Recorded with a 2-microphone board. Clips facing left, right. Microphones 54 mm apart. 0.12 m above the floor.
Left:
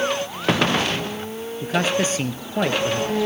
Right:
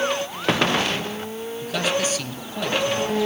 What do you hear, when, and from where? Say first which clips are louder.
1.6 s a man speaking: left 3 dB; 35° left (ahead or behind), 2.5 m